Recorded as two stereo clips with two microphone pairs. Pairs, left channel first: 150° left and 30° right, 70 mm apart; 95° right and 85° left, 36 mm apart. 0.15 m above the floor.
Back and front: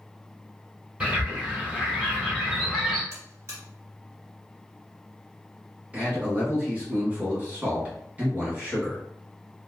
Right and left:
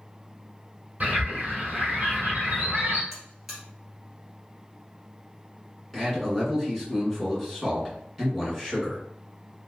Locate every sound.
1.0 s a bird: 40° left, 1.6 m
3.1 s a buzzer: straight ahead, 1.6 m
5.9 s a man speaking: 5° right, 1.6 m